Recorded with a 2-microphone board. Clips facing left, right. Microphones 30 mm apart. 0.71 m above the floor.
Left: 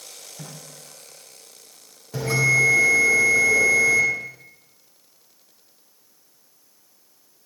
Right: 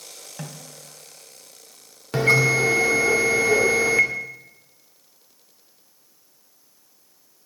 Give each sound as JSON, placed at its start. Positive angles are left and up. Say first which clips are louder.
{"t": 0.4, "sound": "a snare drum", "louder": "right 4 dB", "side_deg": -75, "distance_m": 3.0}
{"t": 2.1, "sound": "a bell", "louder": "right 2 dB", "side_deg": -70, "distance_m": 1.9}